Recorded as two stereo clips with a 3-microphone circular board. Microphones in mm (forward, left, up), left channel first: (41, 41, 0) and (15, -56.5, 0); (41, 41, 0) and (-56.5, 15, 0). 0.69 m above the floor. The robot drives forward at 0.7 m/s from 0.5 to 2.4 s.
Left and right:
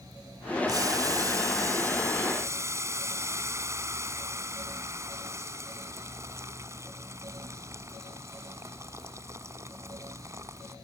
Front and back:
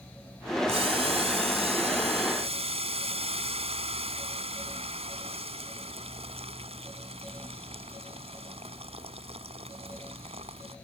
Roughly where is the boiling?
Behind right.